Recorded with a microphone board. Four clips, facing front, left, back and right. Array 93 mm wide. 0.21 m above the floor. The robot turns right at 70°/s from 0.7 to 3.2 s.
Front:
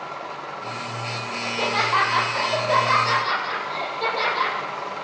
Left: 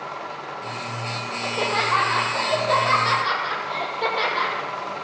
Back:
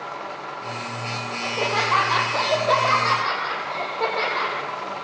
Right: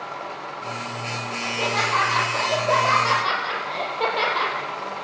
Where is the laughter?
115° left, 8 m; by 4.5 s 120° right, 8 m.